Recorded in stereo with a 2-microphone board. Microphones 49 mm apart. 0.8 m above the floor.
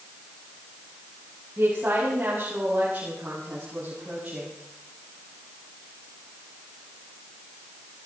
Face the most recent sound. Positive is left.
turn(degrees=-25)  # may be behind; listen again after turning